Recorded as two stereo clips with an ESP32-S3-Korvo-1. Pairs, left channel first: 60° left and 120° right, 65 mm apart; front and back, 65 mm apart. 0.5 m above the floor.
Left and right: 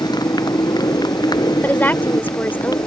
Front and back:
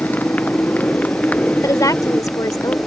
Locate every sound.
0.0 s a motorcycle: 65° left; by 2.9 s 70° left
1.6 s a woman speaking: 5° left